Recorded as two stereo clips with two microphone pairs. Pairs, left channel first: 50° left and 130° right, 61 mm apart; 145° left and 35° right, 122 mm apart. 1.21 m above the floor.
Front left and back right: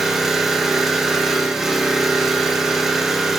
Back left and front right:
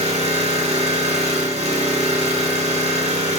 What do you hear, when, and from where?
0.0 s an engine running: 45° right, 1.6 m